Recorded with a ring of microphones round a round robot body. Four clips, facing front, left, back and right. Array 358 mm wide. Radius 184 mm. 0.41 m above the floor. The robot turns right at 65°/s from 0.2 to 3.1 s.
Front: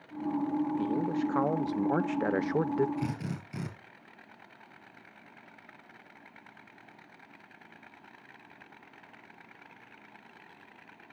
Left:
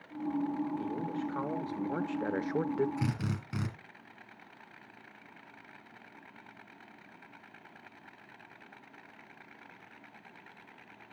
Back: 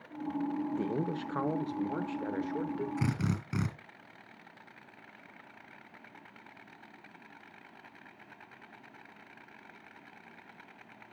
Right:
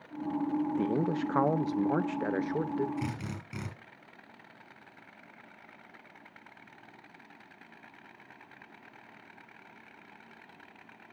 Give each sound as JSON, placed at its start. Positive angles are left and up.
{"t": 0.7, "sound": "a man speaking", "azimuth_deg": -110, "distance_m": 1.0}
{"t": 3.0, "sound": "a drill", "azimuth_deg": 160, "distance_m": 3.0}